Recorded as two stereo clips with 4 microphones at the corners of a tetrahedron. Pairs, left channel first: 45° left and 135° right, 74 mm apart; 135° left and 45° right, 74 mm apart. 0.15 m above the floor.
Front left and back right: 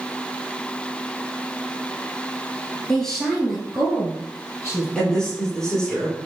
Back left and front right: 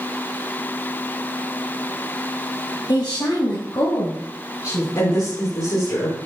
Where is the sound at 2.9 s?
125° left, 3 m; by 4.8 s 160° left, 3.5 m.